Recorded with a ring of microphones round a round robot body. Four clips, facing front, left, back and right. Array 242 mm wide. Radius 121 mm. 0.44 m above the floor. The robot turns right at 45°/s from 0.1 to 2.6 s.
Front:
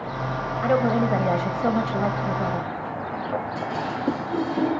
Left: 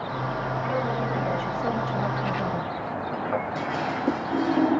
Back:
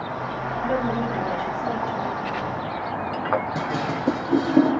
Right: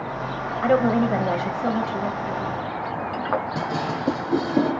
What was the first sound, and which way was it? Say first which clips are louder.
A woman speaking: right 11 dB, front 4 dB; 60° right.